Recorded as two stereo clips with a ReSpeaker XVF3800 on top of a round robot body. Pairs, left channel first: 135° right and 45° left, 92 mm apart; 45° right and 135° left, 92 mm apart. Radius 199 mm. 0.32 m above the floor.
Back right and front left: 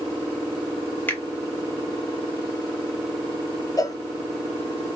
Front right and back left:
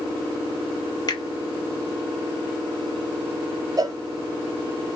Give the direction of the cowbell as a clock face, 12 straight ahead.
6 o'clock.